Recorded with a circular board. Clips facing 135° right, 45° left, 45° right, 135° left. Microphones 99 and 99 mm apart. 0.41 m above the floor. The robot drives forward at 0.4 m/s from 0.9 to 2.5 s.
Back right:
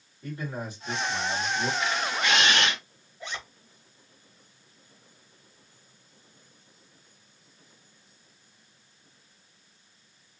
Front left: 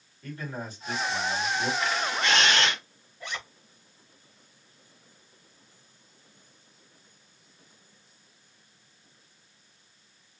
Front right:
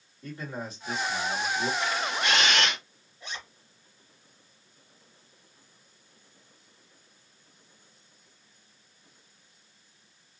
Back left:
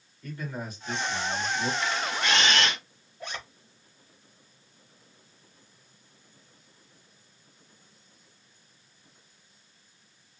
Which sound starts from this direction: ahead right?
A camera shutter, at 1.8 s.